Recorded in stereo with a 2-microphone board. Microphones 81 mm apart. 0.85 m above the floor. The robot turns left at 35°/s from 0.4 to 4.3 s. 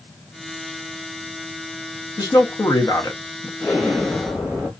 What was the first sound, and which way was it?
A man speaking, 90° left.